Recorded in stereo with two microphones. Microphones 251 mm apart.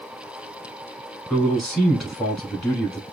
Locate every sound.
1.3 s a man speaking: centre (ahead or behind), 1.1 m